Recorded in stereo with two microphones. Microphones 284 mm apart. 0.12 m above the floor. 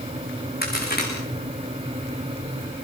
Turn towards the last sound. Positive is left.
turn(degrees=35)  # may be behind; listen again after turning